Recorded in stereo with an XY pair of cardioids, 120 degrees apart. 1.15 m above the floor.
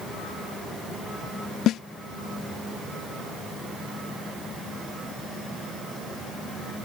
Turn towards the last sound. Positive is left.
turn(degrees=65)